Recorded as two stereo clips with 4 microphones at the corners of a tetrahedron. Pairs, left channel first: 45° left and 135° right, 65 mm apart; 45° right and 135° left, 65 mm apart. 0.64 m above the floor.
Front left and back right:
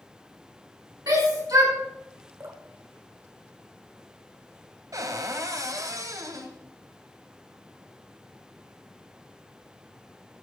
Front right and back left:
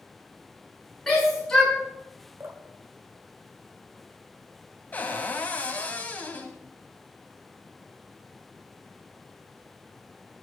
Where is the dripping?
Straight behind, 1.5 m.